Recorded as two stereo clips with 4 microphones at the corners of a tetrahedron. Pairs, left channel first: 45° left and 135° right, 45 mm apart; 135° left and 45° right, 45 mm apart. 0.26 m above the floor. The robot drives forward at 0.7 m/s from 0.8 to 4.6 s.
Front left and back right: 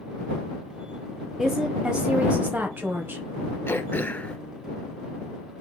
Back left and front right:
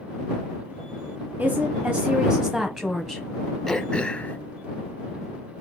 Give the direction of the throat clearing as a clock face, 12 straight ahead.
10 o'clock.